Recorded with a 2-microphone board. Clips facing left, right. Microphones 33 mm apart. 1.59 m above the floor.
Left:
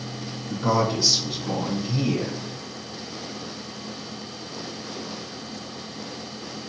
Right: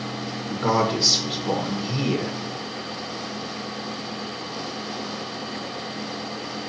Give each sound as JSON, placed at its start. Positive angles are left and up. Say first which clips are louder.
{"t": 0.5, "sound": "a man speaking", "louder": "right 1 dB", "side_deg": -70, "distance_m": 1.6}